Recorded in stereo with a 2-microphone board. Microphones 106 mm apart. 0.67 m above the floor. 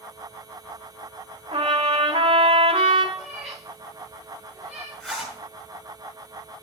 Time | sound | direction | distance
1.5 | a trumpet | 60° right (ahead or behind) | 2.0 m
3.1 | a cat meowing | centre (ahead or behind) | 5.5 m
5.0 | a zipper | 5° left (ahead or behind) | 6 m